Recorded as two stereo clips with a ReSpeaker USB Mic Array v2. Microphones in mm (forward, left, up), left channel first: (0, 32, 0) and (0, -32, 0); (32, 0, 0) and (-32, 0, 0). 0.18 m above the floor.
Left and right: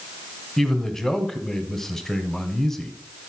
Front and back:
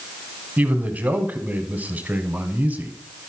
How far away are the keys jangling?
No keys jangling in this recording.